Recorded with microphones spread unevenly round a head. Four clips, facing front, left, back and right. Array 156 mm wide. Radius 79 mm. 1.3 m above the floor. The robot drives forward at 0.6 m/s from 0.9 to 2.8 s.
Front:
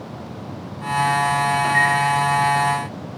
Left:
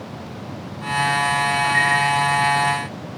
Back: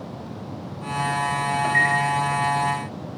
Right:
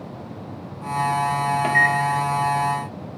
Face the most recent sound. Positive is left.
turn(degrees=-95)